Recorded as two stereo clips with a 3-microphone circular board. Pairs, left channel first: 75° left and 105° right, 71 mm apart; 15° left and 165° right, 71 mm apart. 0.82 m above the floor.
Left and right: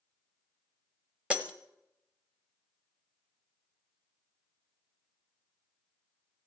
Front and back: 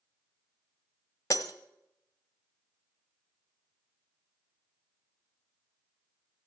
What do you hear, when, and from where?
1.3 s breaking glass: 30° right, 1.4 m